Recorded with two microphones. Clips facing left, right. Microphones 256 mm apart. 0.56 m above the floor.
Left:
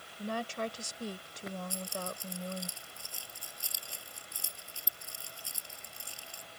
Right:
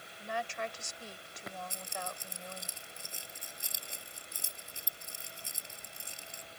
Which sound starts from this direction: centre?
Keys jangling, at 1.7 s.